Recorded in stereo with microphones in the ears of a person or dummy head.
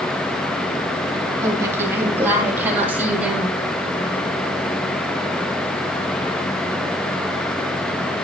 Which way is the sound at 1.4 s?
20° right (ahead or behind).